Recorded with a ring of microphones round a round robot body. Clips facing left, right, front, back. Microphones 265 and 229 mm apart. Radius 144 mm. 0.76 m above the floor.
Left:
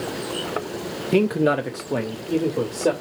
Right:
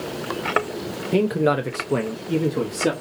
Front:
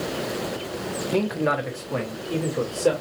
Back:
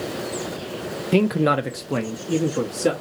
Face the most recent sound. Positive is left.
turn(degrees=-140)